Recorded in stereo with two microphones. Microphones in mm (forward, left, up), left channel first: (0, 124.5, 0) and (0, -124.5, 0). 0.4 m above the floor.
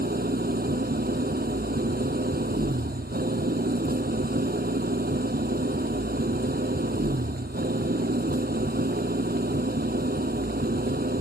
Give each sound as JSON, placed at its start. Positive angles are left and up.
{"t": 0.0, "sound": "an engine running", "side_deg": -40}